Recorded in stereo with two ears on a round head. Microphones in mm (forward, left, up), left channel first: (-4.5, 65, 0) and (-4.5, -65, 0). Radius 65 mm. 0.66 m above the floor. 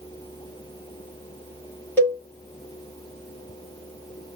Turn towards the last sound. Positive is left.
turn(degrees=15)  # may be behind; listen again after turning